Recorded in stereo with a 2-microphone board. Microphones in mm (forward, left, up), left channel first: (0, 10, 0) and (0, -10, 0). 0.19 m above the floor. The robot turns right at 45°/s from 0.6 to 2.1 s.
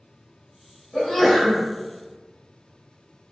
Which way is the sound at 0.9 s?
150° left.